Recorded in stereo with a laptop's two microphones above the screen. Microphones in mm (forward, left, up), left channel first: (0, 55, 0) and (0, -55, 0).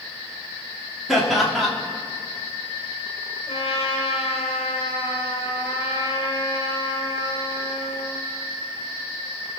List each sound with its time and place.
1.1 s laughter: centre (ahead or behind), 2.5 m
3.5 s a trumpet: 55° left (ahead or behind), 1.7 m